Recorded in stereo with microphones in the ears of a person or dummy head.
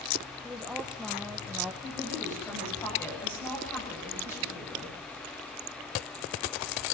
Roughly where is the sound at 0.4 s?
Centre.